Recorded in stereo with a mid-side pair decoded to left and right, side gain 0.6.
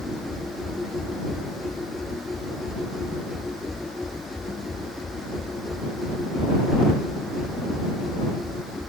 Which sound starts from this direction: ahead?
A machine running, at 0.0 s.